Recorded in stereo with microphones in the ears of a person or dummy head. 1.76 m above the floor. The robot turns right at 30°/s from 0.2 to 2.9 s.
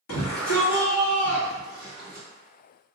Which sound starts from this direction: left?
A shout, at 0.1 s.